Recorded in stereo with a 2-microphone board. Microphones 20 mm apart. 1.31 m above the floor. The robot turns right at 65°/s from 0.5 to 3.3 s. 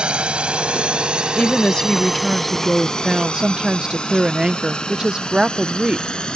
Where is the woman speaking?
100° left; by 6.1 s 135° right.